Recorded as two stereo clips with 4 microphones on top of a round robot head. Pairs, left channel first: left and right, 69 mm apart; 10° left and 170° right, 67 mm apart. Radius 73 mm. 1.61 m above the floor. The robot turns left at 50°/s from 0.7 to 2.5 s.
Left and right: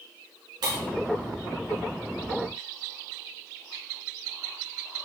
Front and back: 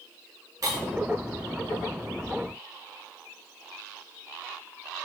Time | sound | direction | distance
0.6 | breaking glass | 120° right | 8 m